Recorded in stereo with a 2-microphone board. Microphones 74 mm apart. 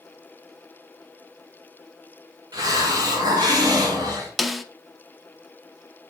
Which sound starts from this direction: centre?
A snare drum, at 4.4 s.